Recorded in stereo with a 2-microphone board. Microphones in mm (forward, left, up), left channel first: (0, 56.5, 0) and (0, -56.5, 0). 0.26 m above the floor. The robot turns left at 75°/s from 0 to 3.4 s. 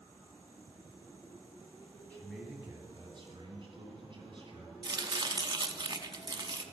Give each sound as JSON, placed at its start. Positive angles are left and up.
{"t": 2.1, "sound": "a man speaking", "azimuth_deg": 15, "distance_m": 2.5}
{"t": 4.8, "sound": "chopping", "side_deg": -40, "distance_m": 0.7}